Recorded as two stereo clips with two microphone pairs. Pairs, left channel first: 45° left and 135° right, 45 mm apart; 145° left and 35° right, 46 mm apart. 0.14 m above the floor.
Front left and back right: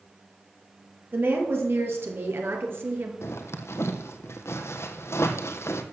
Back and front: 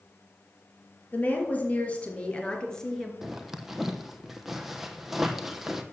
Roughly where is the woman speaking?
Behind.